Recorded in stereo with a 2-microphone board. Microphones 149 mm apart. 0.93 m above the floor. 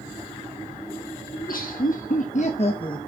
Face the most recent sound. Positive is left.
turn(degrees=30)  # may be behind; listen again after turning